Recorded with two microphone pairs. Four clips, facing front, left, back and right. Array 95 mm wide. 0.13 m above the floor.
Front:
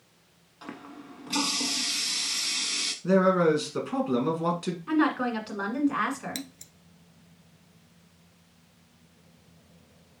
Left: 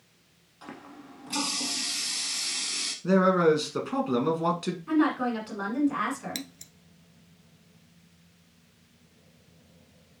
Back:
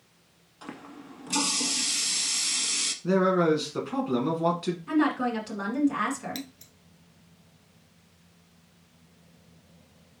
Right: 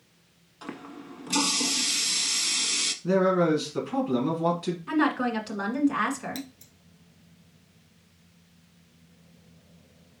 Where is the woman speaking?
40° right, 1.5 m.